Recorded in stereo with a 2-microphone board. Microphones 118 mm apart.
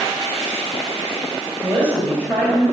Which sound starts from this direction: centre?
A woman speaking, at 1.6 s.